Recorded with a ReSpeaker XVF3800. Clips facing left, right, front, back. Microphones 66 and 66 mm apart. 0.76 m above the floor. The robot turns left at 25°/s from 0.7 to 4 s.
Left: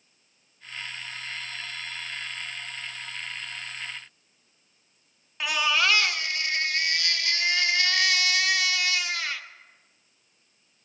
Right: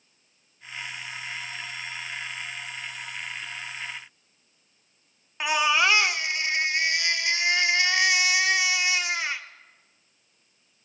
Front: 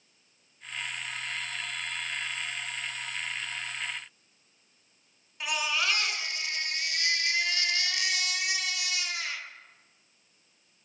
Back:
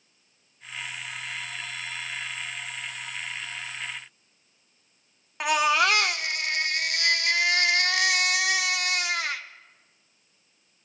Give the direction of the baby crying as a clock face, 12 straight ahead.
5 o'clock.